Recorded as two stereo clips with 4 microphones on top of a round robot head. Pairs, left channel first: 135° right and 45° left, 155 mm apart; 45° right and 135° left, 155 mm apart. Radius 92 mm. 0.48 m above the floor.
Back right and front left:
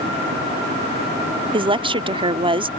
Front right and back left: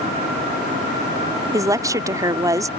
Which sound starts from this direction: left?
A woman speaking, at 1.5 s.